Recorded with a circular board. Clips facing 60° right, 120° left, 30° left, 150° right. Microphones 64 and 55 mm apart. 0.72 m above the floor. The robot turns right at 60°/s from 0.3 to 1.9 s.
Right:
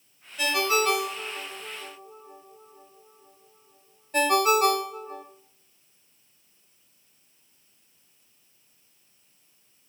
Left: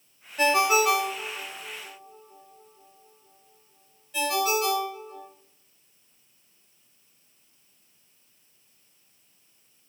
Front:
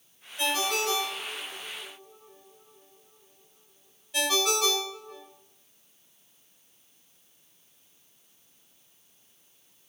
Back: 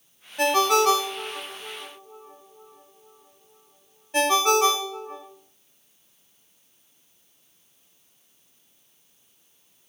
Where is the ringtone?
170° left, 1.1 m; by 5.2 s 95° right, 1.1 m.